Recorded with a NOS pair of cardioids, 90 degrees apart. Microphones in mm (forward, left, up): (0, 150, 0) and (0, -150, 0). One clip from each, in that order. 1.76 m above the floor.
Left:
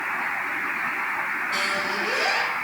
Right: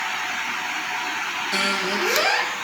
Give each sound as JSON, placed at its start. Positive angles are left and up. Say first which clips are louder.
{"t": 1.5, "sound": "a squeak", "louder": "right 4 dB", "azimuth_deg": -55, "distance_m": 1.9}